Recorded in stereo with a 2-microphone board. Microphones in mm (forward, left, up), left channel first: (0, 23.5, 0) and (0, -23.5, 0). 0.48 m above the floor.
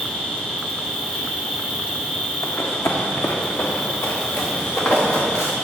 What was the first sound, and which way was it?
An insect, 15° left (ahead or behind).